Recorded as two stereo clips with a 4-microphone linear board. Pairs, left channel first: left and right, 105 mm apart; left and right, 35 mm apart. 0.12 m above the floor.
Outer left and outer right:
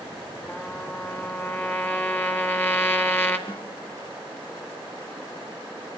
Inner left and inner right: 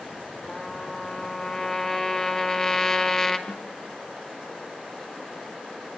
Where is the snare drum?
45° left (ahead or behind), 3 m.